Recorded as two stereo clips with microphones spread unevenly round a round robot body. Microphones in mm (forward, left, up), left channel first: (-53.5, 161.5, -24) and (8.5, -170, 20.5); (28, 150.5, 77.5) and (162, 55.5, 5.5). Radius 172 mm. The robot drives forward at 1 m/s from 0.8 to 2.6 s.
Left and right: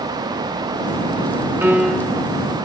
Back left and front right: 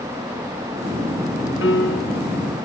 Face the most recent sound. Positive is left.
turn(degrees=-170)